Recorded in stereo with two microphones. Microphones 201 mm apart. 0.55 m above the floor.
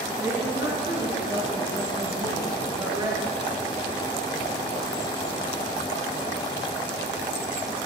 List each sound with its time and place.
0.2 s a woman speaking: 10° right (ahead or behind), 9.5 m; by 3.3 s 20° right (ahead or behind), 9.5 m